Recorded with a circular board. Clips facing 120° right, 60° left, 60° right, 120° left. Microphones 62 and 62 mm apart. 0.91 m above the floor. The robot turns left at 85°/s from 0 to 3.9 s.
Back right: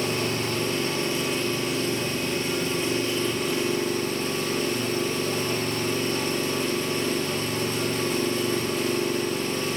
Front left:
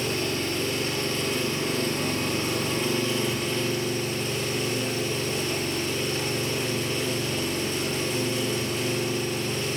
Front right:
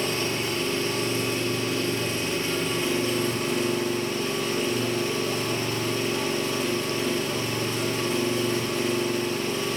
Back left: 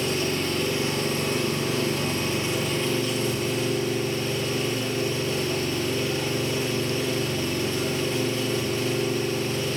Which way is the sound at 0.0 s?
100° right.